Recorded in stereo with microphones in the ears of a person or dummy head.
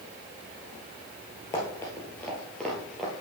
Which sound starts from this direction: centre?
Running footsteps, at 1.5 s.